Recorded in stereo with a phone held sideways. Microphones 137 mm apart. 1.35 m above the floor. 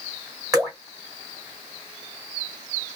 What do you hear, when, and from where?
0.5 s dripping: 25° right (ahead or behind), 1.5 m